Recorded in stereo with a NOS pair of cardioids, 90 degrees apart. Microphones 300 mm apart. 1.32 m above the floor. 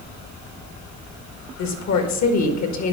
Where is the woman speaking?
65° left, 1.5 m.